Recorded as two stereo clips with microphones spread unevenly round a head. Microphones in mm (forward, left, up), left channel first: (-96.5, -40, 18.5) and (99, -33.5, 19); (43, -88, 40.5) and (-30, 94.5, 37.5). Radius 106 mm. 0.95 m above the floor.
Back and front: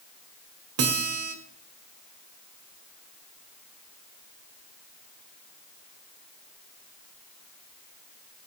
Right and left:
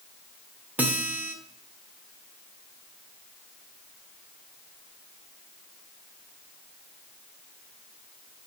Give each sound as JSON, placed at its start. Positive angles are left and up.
{"t": 0.8, "sound": "a guitar", "azimuth_deg": 30, "distance_m": 1.3}